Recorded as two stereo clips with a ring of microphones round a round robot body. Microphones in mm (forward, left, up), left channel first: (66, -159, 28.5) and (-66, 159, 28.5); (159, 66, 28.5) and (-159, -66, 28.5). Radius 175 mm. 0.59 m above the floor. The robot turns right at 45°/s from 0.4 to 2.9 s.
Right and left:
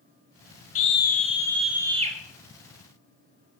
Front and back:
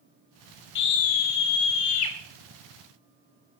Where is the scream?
20° right, 4 m; by 2.1 s 45° left, 4 m.